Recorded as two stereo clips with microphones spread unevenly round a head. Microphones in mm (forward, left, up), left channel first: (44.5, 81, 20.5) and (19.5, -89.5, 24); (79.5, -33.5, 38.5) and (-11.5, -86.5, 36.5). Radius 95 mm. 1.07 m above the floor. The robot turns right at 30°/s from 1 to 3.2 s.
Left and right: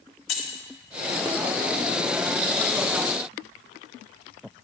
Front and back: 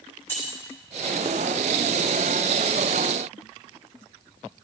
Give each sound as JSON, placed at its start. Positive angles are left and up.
{"t": 0.3, "sound": "keys jangling", "azimuth_deg": 105, "distance_m": 2.5}